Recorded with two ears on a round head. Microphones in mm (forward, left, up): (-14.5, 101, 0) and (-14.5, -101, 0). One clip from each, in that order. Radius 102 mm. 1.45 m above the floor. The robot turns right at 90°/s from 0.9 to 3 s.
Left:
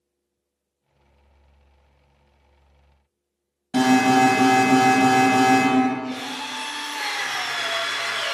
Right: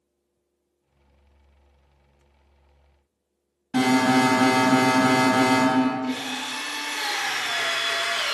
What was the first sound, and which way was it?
An alarm, 20° left (ahead or behind).